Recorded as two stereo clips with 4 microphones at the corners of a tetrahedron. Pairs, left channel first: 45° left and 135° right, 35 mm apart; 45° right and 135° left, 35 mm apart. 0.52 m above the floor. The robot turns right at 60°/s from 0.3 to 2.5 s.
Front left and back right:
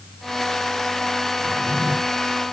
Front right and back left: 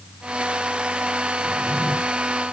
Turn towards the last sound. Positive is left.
turn(degrees=-85)